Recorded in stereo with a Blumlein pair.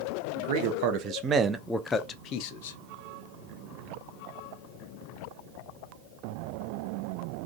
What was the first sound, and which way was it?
A man speaking, 55° right.